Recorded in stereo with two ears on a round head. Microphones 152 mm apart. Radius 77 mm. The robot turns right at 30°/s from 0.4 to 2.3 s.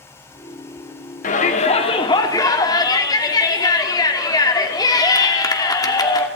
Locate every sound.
1.2 s a shout: 120° left, 2.5 m; by 6.3 s 155° left, 2.5 m